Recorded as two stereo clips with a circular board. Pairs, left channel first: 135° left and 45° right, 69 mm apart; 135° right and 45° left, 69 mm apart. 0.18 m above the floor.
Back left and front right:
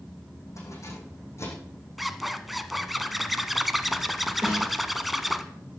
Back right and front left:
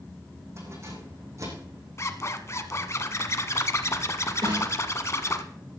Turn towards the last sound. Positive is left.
turn(degrees=50)